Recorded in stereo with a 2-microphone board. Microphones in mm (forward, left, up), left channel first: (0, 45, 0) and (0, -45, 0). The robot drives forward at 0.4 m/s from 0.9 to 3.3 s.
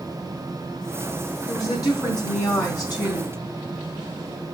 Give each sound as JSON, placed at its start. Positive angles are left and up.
{"t": 1.5, "sound": "a woman speaking", "side_deg": 40, "distance_m": 3.0}